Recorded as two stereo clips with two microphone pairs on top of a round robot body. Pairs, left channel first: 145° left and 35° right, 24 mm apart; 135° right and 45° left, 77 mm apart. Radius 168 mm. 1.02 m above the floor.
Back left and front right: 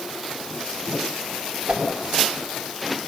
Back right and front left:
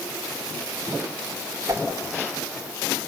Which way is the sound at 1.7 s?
10° right.